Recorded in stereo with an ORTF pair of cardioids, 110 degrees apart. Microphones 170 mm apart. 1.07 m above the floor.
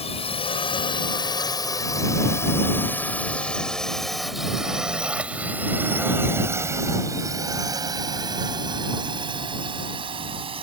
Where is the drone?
35° left; by 10.6 s 35° right.